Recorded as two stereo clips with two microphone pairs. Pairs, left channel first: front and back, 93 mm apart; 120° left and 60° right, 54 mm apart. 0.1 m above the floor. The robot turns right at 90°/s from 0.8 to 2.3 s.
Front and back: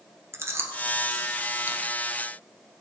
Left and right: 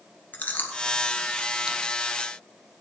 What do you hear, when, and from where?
0.3 s chewing: 145° left, 1.3 m; by 1.9 s 110° right, 1.3 m